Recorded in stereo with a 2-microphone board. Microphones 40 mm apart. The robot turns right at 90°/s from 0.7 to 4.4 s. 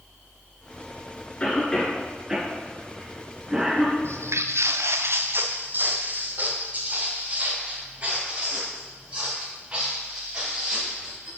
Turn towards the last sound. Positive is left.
turn(degrees=-25)  # may be behind; listen again after turning